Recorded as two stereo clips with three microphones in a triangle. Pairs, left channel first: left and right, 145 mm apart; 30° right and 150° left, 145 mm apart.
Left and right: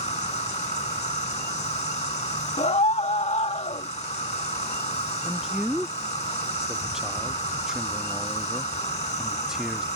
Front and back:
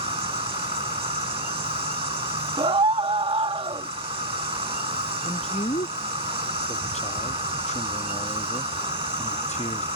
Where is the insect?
115° left.